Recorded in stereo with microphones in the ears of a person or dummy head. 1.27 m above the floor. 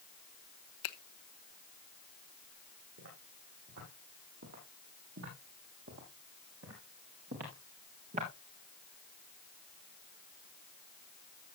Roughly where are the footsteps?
Right.